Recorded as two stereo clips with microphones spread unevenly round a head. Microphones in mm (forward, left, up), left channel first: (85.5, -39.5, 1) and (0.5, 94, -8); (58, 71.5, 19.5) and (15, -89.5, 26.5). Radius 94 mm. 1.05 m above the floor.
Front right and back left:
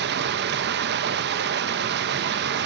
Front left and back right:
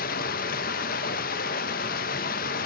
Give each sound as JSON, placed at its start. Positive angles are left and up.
{"t": 0.0, "sound": "running water", "azimuth_deg": 115, "distance_m": 0.8}